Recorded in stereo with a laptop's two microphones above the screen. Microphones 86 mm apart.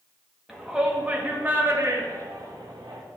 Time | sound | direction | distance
0.5 | a shout | 5° right (ahead or behind) | 1.4 m